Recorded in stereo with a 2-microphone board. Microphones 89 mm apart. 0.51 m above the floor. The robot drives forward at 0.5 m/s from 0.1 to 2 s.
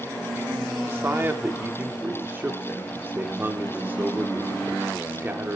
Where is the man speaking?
25° right (ahead or behind), 1.1 m.